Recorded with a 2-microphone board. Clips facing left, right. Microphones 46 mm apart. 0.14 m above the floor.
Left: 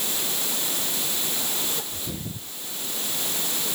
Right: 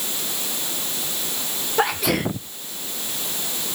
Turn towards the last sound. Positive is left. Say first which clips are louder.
# right 14 dB
turn(degrees=-75)  # may be behind; listen again after turning